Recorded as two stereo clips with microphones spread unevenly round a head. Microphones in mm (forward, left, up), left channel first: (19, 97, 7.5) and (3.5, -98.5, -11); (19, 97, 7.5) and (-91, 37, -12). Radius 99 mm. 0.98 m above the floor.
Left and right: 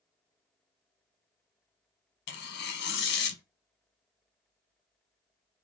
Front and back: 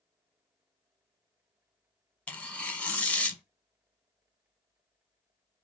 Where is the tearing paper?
115° left, 1.0 m.